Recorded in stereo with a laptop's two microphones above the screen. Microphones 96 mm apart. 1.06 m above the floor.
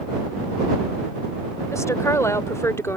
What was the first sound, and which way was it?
A woman speaking, 30° left (ahead or behind).